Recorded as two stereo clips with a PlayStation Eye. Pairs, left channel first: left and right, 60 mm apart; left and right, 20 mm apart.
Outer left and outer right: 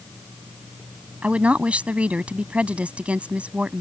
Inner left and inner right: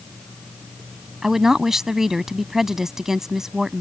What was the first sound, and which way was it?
A woman speaking, 25° right (ahead or behind).